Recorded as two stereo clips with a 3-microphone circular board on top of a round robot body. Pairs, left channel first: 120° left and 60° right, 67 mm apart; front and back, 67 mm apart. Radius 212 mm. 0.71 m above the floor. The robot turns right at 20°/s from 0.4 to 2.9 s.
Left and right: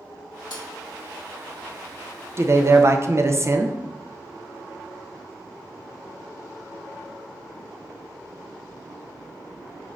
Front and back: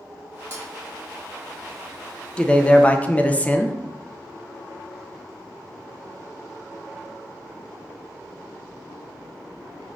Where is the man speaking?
70° right, 0.6 m; by 3.8 s 55° right, 0.6 m.